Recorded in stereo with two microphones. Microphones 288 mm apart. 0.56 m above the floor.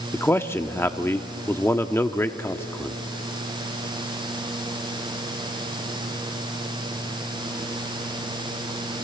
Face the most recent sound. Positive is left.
turn(degrees=10)  # may be behind; listen again after turning